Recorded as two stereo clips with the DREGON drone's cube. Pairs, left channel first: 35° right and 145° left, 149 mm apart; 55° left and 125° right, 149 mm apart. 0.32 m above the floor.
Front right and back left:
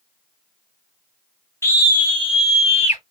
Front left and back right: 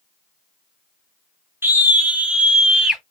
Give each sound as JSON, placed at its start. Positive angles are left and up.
{"t": 1.6, "sound": "a scream", "azimuth_deg": -75, "distance_m": 1.1}